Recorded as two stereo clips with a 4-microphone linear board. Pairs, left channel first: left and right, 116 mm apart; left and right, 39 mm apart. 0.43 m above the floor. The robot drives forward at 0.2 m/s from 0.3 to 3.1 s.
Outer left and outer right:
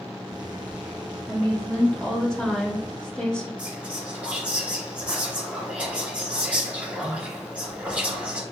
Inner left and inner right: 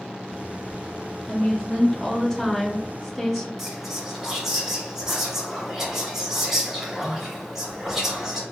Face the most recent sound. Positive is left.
turn(degrees=-15)  # may be behind; listen again after turning